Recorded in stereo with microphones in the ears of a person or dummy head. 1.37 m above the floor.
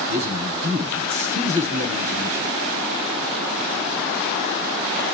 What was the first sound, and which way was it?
A man speaking, 80° right.